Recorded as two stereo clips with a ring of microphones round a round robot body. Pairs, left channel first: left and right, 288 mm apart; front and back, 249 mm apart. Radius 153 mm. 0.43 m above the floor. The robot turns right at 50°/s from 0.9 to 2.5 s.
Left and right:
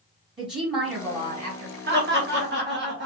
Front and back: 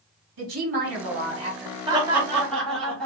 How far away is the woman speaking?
About 2 m.